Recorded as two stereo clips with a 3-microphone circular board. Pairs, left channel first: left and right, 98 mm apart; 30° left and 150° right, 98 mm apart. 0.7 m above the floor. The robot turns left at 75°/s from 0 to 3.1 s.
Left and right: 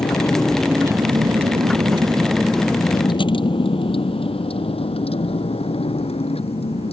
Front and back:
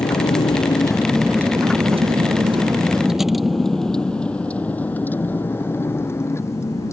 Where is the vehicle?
55° left; by 6.9 s 90° left.